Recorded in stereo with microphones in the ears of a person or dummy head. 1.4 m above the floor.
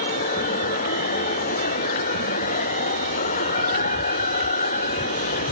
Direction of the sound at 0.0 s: 45° left (ahead or behind).